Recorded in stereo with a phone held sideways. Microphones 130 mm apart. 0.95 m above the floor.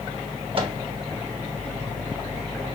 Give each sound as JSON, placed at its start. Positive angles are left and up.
{"t": 0.6, "sound": "a microwave", "side_deg": -45, "distance_m": 1.2}